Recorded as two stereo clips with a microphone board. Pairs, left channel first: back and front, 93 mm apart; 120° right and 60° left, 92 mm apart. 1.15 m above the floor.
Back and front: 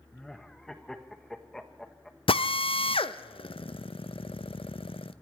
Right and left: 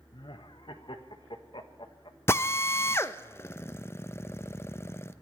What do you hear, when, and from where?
0.1 s laughter: 95° right, 1.2 m
2.3 s a drill: 175° left, 0.5 m